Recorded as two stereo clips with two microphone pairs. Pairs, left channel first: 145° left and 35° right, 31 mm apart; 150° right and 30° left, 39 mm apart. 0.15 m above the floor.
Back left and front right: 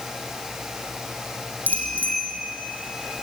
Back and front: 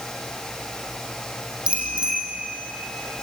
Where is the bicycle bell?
35° right, 5.5 m.